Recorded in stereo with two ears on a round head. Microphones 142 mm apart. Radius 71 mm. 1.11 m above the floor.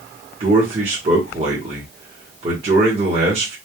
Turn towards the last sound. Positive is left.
turn(degrees=-40)  # may be behind; listen again after turning